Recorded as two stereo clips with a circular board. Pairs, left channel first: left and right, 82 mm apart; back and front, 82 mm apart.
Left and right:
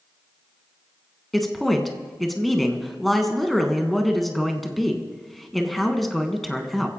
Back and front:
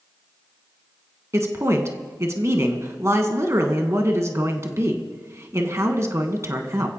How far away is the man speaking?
About 1.5 m.